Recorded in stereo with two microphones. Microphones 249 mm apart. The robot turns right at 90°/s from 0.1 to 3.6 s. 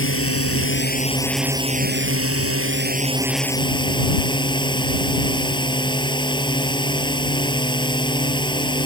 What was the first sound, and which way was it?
A drone, 65° left.